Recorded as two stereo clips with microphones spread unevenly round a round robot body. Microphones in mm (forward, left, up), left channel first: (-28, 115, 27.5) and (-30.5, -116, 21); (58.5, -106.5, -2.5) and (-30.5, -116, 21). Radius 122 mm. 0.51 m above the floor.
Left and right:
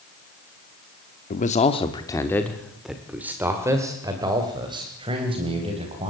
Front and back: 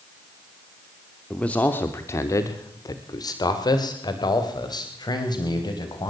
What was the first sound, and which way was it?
A man speaking, 60° left.